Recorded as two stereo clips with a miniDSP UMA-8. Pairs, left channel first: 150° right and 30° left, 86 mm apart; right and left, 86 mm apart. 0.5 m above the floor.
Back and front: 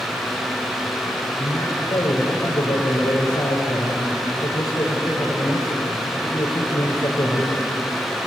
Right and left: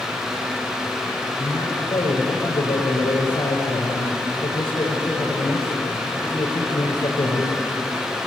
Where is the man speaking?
110° right, 6.5 m.